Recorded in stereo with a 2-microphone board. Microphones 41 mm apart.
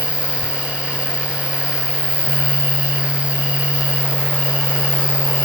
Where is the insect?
60° right (ahead or behind), 2 m.